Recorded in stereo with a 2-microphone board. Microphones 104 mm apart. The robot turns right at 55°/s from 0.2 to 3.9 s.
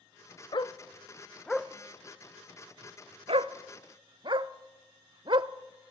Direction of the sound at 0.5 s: 50° left (ahead or behind).